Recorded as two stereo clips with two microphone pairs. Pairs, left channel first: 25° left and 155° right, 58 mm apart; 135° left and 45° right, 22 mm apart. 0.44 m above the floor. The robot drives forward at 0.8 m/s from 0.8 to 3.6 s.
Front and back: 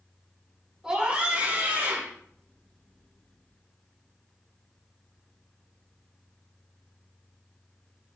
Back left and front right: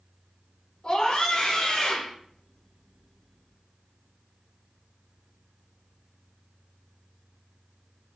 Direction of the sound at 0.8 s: 125° left.